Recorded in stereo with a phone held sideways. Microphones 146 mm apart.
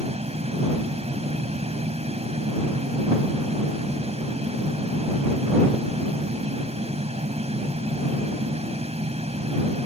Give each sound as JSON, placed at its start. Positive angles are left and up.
{"t": 0.0, "sound": "a fan", "side_deg": -50}